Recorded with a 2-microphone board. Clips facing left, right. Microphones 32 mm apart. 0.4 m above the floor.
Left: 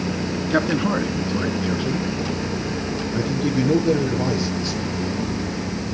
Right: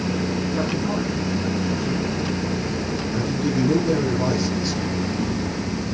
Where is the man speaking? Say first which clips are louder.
Left 4 dB; 70° left (ahead or behind), 4 m; by 4.9 s 5° left (ahead or behind), 6.5 m.